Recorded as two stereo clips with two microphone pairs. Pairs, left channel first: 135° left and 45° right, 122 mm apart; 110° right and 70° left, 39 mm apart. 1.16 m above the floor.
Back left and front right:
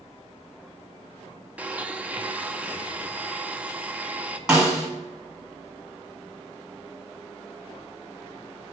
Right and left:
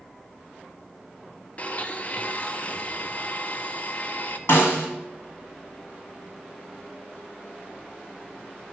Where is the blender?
115° right, 0.6 m.